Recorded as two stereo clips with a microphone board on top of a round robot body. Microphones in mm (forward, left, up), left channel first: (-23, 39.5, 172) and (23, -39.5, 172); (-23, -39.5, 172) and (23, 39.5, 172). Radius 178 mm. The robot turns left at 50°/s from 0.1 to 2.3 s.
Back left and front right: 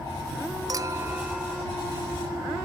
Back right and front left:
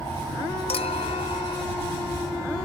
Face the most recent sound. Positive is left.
turn(degrees=170)